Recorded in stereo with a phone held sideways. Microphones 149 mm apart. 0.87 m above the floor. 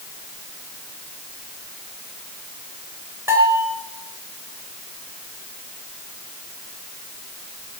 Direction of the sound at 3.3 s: 15° right (ahead or behind).